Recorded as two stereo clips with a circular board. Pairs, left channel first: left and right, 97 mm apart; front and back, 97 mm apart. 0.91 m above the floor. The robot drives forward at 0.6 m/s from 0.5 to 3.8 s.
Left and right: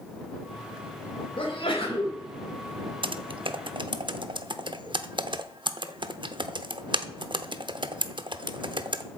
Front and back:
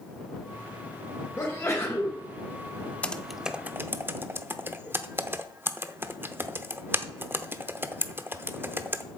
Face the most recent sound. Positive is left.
turn(degrees=-115)